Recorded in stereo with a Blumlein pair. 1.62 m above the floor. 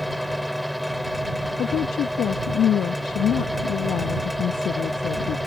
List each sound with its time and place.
0.0 s a fan: straight ahead
1.6 s a woman speaking: 30° left